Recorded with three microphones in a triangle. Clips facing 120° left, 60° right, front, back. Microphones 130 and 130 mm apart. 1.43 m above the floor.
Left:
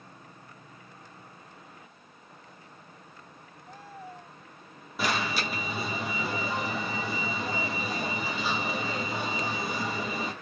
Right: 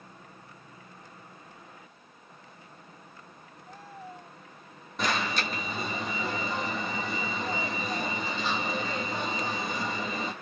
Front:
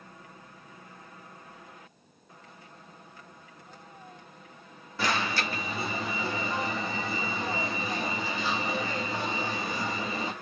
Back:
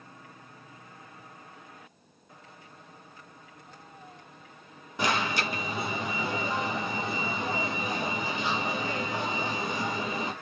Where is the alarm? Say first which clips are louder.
Even, back 1 dB; 170° right, 0.8 m.